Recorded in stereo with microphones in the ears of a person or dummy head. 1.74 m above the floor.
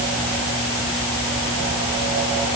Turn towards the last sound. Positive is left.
No sound to turn to.